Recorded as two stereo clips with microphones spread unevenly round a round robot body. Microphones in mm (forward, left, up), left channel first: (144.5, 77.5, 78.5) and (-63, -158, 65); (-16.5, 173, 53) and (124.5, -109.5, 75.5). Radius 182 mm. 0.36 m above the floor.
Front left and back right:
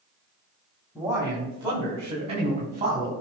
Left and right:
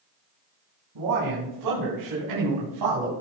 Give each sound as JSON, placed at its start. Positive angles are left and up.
{"t": 0.9, "sound": "a man speaking", "azimuth_deg": -50, "distance_m": 3.0}